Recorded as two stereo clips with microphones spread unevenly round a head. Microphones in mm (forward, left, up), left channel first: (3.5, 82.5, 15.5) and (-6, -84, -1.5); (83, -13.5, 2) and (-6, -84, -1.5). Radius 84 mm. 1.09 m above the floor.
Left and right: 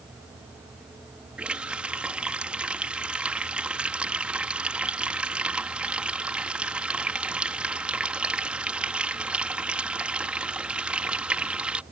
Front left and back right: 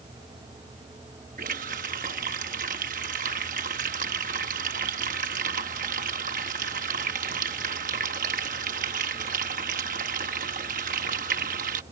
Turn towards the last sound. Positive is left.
turn(degrees=180)